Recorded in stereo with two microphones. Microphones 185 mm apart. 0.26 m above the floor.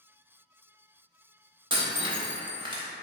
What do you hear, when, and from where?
1.7 s breaking glass: 30° right (ahead or behind), 0.6 m